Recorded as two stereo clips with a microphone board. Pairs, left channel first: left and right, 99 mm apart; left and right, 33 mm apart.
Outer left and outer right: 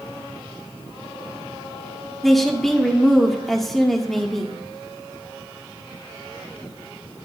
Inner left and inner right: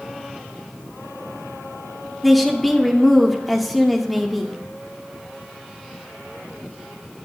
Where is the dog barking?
No dog barking in this recording.